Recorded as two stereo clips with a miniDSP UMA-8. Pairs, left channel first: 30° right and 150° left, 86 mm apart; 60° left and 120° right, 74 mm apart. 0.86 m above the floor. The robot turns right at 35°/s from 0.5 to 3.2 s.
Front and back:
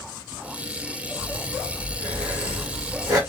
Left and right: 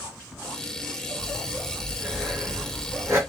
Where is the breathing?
125° left, 1.9 m; by 3.2 s 165° right, 1.9 m.